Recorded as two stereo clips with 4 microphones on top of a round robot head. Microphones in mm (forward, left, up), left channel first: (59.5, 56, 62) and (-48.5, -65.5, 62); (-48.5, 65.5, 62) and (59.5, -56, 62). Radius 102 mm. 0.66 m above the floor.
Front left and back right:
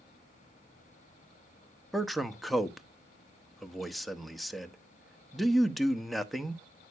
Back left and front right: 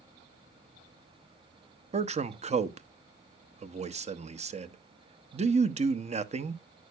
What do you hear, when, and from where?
1.9 s a man speaking: 40° right, 1.0 m